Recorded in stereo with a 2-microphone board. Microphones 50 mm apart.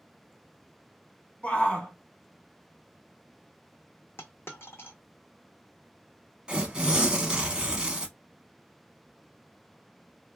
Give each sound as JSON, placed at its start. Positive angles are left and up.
{"t": 1.4, "sound": "a shout", "side_deg": 25, "distance_m": 1.2}
{"t": 4.2, "sound": "a dropped coin", "side_deg": 55, "distance_m": 0.8}
{"t": 6.5, "sound": "tearing paper", "side_deg": -20, "distance_m": 0.8}